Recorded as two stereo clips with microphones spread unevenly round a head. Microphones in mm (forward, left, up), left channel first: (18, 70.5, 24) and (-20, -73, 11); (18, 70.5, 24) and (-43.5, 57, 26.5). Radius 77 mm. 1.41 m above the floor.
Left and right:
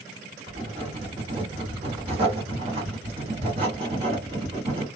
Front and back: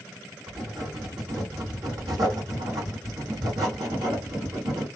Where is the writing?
155° right, 1.8 m.